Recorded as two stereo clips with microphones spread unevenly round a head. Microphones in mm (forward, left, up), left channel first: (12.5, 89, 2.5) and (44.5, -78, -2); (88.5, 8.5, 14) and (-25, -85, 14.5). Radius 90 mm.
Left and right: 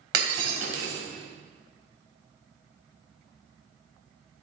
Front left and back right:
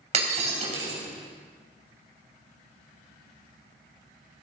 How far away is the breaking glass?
About 3.5 m.